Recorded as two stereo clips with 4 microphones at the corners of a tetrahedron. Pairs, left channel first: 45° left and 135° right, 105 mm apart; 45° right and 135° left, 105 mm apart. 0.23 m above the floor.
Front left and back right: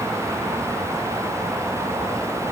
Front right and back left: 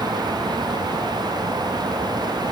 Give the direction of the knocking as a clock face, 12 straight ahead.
I don't hear knocking.